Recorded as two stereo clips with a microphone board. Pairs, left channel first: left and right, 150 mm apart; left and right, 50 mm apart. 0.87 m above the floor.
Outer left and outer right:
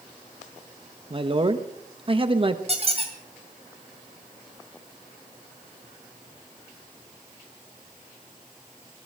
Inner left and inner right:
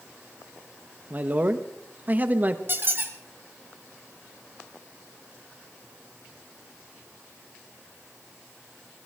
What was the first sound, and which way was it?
A man speaking, 35° right (ahead or behind).